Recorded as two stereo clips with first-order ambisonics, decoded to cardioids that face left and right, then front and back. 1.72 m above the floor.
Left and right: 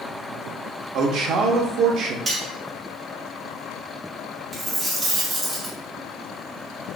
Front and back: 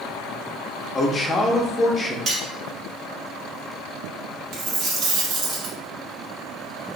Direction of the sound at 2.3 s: 145° right.